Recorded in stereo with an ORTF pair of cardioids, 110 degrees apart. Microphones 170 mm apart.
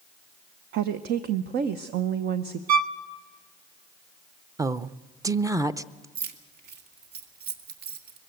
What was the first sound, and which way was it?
A woman speaking, 70° right.